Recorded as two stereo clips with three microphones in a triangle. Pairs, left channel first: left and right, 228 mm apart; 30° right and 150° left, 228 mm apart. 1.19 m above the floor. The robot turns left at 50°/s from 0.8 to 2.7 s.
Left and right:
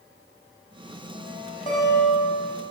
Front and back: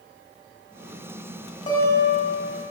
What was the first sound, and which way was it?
A guitar, 25° left.